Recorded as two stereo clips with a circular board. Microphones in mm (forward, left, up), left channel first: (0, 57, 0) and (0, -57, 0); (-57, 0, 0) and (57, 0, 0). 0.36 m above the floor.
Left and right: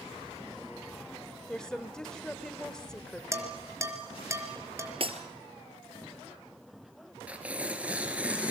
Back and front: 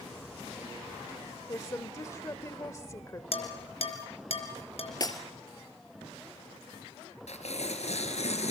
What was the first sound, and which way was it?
A woman speaking, 165° left.